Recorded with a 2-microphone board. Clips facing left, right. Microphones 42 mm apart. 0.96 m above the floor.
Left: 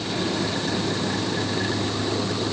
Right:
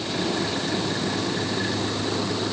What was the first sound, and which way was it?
Only background noise.